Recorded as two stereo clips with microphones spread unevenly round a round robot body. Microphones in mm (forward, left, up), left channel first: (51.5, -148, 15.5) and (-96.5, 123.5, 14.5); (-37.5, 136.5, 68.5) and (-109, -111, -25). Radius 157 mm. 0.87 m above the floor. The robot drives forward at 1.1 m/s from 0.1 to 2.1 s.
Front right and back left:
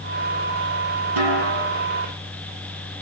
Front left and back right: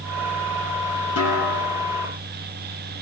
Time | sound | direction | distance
1.2 | a snare drum | 105° left | 7.5 m